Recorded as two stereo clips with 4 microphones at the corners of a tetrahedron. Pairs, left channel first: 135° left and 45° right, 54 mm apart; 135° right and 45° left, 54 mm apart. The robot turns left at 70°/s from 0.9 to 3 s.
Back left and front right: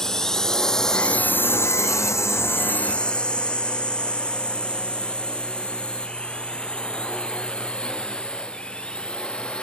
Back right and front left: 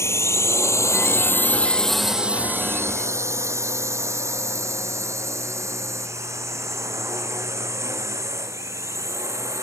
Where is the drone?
150° right; by 9.6 s 65° left.